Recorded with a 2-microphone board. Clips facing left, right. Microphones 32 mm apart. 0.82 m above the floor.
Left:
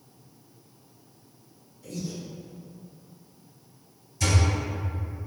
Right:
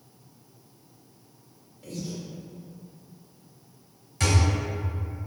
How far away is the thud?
About 1.8 m.